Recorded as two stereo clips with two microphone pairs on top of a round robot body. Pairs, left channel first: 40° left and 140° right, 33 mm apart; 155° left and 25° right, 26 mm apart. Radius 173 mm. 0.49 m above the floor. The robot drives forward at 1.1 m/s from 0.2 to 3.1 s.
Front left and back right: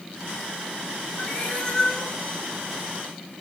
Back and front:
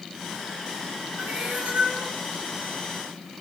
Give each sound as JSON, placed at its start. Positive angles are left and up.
{"t": 1.2, "sound": "a cat meowing", "azimuth_deg": -25, "distance_m": 6.0}